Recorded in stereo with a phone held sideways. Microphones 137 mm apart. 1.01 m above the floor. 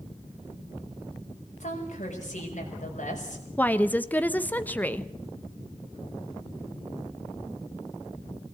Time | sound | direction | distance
1.6 | a woman speaking | 60° left (ahead or behind) | 6 m
3.6 | a woman speaking | 15° left (ahead or behind) | 0.9 m